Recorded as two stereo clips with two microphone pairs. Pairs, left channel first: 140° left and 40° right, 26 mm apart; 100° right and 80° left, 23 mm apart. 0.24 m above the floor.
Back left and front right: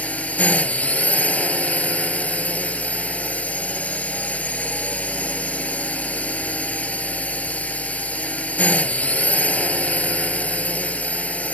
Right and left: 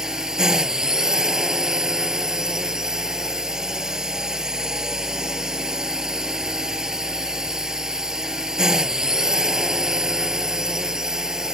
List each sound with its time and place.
0.0 s a drone: 145° left